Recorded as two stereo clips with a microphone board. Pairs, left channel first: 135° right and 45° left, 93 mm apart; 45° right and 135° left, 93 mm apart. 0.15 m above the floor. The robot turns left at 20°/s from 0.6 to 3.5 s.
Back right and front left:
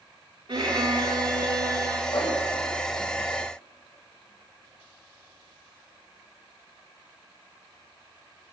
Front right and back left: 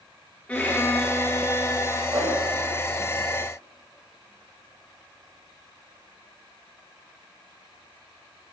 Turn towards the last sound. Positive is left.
turn(degrees=165)